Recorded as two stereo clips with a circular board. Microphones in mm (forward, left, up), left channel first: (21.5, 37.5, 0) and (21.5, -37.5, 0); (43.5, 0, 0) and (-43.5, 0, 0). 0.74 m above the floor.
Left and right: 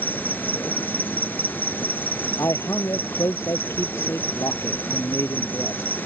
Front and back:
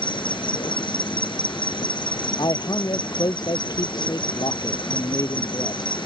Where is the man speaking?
40° left.